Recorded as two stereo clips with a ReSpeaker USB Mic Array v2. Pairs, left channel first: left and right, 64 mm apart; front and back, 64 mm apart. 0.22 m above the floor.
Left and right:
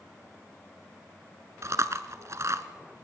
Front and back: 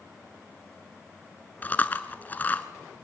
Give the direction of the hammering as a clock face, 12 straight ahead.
No hammering in this recording.